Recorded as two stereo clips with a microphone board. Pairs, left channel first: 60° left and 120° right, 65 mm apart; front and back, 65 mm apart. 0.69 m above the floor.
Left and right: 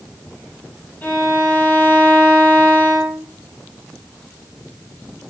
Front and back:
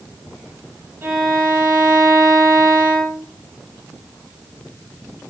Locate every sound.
1.0 s a violin: 130° left, 4.5 m